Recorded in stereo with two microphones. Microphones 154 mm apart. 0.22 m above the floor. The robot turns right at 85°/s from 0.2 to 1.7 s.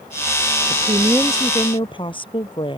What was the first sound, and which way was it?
A woman speaking, 55° right.